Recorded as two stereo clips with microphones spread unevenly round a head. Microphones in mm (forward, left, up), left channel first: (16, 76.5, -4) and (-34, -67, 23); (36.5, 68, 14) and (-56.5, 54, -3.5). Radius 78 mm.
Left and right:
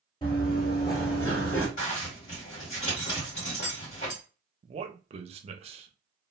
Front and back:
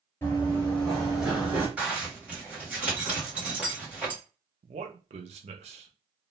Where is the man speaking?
145° right, 0.5 m.